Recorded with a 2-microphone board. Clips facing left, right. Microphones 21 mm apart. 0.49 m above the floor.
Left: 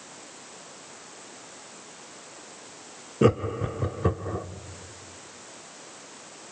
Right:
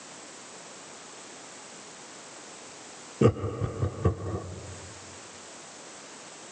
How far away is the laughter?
About 1.2 m.